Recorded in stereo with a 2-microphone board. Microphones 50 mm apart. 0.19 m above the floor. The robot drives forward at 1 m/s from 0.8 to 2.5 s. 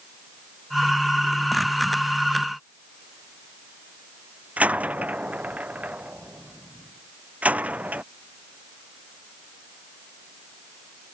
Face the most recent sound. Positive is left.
turn(degrees=-30)  # may be behind; listen again after turning